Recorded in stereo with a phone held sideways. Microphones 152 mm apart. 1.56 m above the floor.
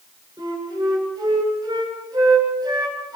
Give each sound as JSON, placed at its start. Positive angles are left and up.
{"t": 0.4, "sound": "a flute", "side_deg": -25, "distance_m": 9.5}